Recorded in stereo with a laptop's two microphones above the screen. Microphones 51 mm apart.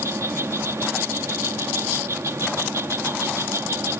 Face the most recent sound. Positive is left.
turn(degrees=-70)  # may be behind; listen again after turning